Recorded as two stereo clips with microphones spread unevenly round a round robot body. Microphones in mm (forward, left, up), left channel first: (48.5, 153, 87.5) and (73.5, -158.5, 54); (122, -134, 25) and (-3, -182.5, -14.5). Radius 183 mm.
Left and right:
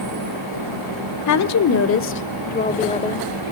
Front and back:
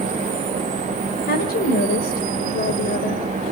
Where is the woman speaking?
65° left, 2.5 m; by 3.3 s 15° left, 2.5 m.